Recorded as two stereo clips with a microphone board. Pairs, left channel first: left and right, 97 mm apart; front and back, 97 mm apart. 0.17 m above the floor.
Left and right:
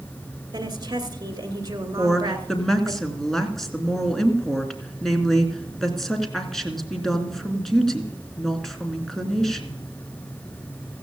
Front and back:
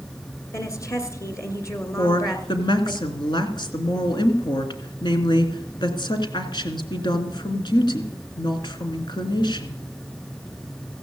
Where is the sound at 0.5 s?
50° right, 2.5 m.